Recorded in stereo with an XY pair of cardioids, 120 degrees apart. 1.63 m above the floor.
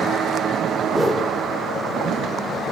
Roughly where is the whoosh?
Ahead.